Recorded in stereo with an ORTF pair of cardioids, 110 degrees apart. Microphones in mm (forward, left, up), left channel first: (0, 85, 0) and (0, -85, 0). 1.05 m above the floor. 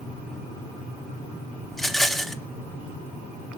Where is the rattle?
Straight ahead, 0.7 m.